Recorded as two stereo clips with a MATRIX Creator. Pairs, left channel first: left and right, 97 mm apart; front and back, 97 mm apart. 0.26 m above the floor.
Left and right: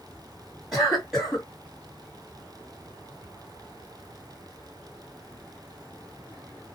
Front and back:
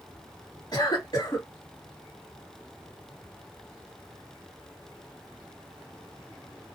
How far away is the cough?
About 1.9 m.